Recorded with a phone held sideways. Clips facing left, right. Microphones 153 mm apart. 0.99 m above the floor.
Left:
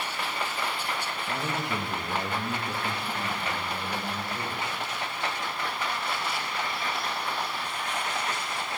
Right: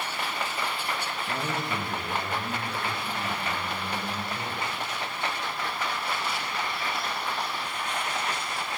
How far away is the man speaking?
About 1.2 m.